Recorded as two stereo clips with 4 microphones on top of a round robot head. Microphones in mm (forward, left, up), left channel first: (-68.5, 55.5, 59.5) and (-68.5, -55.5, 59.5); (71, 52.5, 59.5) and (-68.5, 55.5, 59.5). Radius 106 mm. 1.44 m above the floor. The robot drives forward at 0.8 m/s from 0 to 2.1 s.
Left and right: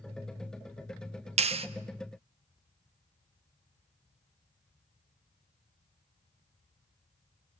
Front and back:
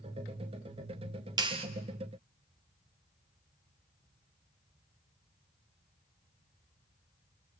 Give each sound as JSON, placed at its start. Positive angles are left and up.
{"t": 1.4, "sound": "a clap", "azimuth_deg": -110, "distance_m": 0.9}